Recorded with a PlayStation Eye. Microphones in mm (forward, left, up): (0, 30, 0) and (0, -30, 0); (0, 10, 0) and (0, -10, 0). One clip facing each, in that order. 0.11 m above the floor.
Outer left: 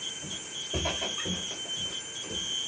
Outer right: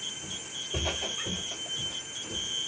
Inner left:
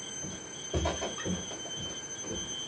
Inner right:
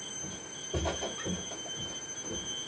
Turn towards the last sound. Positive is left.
turn(degrees=40)  # may be behind; listen again after turning